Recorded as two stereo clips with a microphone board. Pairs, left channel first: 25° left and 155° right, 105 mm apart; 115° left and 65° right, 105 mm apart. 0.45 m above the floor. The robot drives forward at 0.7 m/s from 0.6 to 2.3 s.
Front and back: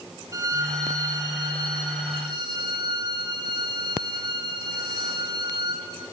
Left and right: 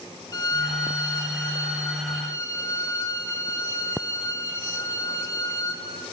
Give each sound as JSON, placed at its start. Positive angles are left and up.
{"t": 0.3, "sound": "a violin", "azimuth_deg": 155, "distance_m": 1.8}